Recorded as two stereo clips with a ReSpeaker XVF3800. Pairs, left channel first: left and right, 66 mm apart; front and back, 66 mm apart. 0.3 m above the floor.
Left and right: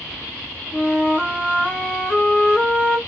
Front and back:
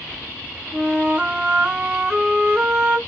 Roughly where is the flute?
Behind left.